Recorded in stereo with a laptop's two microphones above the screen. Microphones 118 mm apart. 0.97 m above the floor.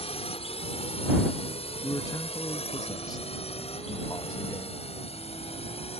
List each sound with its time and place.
0.0 s a drone: 60° left (ahead or behind)
1.8 s a man speaking: 35° left (ahead or behind)